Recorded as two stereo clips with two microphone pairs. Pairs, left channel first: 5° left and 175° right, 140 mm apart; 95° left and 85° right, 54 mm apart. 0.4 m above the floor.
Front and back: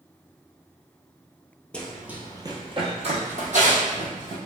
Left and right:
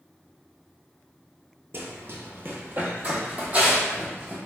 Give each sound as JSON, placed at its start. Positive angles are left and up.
{"t": 1.7, "sound": "running footsteps", "azimuth_deg": -75, "distance_m": 0.5}